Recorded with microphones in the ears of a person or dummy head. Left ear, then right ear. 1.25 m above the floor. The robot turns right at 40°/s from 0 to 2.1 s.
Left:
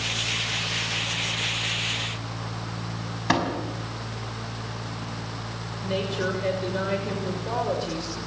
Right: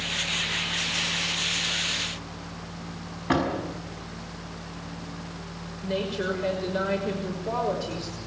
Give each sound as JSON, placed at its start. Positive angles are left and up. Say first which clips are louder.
{"t": 3.3, "sound": "a door slam", "louder": "left 1 dB", "side_deg": 85, "distance_m": 6.5}
{"t": 5.8, "sound": "a woman speaking", "louder": "left 1 dB", "side_deg": 5, "distance_m": 6.0}